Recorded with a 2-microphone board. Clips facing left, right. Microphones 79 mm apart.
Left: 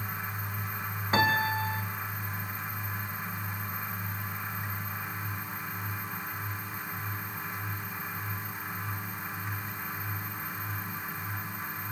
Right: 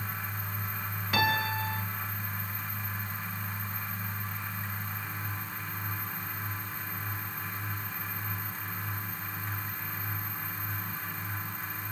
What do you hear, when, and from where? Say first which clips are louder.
1.1 s a piano: left 2 dB; 30° left (ahead or behind), 2.0 m